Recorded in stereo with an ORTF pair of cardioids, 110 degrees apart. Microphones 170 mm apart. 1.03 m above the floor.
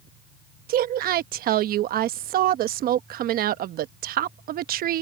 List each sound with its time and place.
0.7 s a woman speaking: 60° right